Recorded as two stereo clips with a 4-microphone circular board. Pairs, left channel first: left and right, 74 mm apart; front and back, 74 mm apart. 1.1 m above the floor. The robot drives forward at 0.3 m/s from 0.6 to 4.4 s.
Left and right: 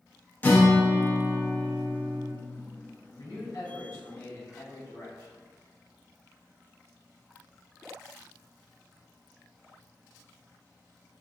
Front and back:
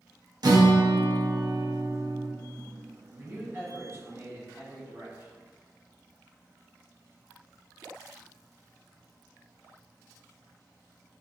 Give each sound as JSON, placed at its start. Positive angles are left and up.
{"t": 0.4, "sound": "a guitar", "azimuth_deg": 155, "distance_m": 0.7}
{"t": 3.2, "sound": "a man speaking", "azimuth_deg": 115, "distance_m": 1.4}